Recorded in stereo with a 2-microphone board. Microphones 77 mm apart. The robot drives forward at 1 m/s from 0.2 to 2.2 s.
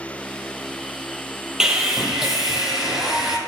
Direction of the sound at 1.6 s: 10° right (ahead or behind).